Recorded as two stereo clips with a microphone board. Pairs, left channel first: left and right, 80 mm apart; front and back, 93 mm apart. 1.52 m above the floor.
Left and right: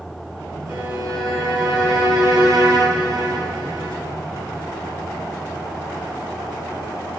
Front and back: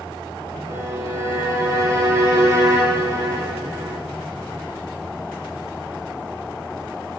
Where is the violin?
125° right, 3.5 m.